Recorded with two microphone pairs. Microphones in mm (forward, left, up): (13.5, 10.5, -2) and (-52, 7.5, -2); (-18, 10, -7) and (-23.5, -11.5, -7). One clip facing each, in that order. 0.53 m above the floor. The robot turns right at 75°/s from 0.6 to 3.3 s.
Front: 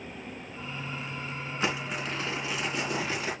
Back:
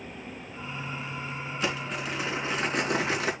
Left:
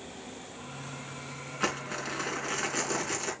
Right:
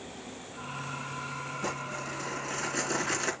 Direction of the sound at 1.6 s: 60° left.